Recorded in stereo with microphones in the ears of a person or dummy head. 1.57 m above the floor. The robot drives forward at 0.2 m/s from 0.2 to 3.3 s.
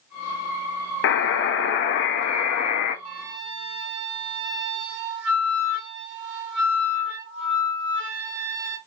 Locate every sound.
1.0 s a buzzer: 70° left (ahead or behind), 0.8 m; by 3.0 s 55° left (ahead or behind), 0.9 m
3.0 s a flute: 65° right (ahead or behind), 1.1 m